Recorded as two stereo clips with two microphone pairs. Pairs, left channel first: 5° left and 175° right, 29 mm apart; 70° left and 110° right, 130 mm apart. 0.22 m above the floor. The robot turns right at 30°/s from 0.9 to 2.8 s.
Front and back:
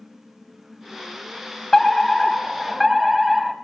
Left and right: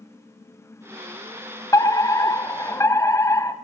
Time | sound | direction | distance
1.7 | a fire alarm | 70° left | 2.0 m